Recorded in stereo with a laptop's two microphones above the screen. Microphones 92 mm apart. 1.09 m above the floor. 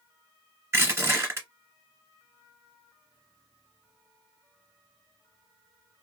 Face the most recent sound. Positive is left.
turn(degrees=-30)  # may be behind; listen again after turning